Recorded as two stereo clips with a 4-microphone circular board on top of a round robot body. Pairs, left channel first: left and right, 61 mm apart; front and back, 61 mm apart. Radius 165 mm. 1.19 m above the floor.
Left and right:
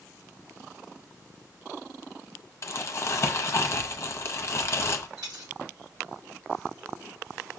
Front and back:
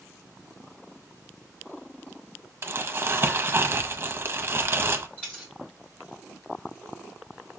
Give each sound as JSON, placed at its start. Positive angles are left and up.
{"t": 2.6, "sound": "crumpling", "azimuth_deg": 130, "distance_m": 0.6}
{"t": 5.2, "sound": "a dropped coin", "azimuth_deg": -75, "distance_m": 0.6}